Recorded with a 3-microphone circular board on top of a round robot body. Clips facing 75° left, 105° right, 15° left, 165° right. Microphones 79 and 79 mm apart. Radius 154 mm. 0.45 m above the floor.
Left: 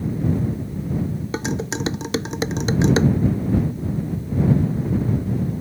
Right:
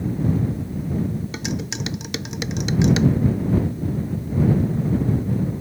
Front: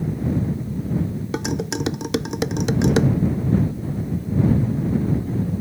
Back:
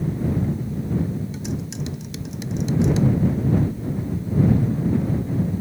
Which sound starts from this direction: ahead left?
Dishes clattering, at 1.3 s.